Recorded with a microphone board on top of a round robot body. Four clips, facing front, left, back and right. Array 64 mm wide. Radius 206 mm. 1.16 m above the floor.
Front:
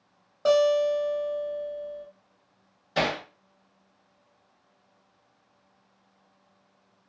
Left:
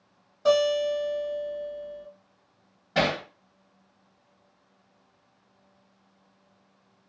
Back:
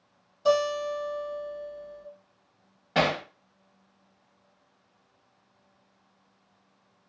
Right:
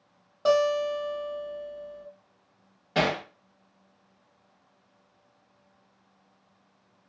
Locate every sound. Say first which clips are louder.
0.5 s a guitar: left 1 dB, front 4 dB; 45° right, 0.9 m
3.0 s hammering: even, back 2 dB; 165° right, 1.0 m